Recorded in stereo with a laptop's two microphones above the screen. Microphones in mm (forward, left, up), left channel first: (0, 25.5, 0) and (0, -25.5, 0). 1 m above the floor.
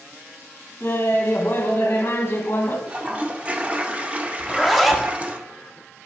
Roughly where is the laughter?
Left.